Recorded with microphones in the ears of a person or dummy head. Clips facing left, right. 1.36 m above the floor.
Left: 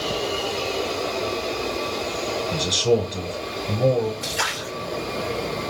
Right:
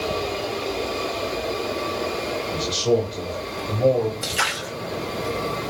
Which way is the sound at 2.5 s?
25° left (ahead or behind).